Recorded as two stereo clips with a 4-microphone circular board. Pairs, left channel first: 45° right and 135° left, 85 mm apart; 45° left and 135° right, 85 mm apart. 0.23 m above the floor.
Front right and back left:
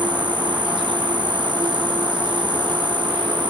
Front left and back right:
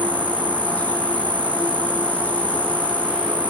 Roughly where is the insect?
Behind left.